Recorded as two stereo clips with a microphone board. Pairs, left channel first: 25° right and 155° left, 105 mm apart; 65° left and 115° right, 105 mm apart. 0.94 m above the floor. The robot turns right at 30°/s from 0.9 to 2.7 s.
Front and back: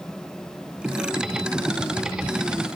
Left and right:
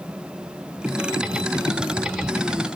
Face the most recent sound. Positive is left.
No sound to turn to.